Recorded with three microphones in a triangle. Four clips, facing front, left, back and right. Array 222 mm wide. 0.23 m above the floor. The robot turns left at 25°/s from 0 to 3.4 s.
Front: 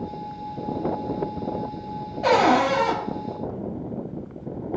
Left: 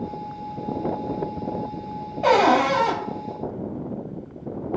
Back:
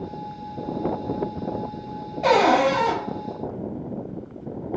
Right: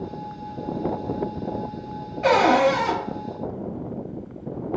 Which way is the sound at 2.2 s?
105° left.